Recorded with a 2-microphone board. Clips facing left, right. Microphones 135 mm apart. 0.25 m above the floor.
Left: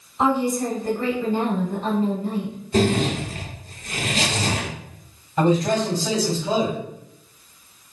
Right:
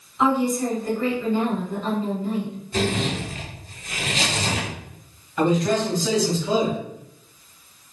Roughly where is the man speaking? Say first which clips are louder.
Left 1 dB; left.